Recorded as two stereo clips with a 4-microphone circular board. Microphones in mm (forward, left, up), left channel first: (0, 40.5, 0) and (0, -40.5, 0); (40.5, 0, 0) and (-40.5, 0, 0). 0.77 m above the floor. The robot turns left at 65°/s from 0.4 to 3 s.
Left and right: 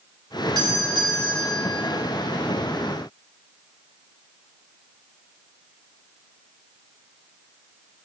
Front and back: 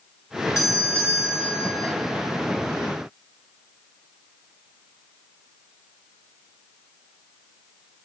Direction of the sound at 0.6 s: 55° right.